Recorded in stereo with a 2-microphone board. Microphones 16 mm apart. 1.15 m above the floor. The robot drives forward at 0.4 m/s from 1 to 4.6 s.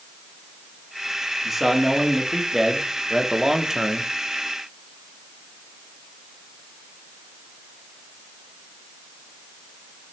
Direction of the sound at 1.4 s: 15° right (ahead or behind).